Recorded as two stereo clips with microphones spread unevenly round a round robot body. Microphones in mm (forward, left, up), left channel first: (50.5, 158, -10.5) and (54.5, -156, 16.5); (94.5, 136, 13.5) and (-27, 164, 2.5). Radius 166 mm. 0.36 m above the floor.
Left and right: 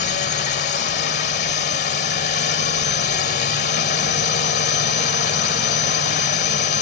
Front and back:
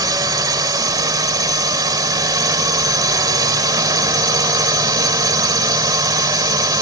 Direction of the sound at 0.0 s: 135° left.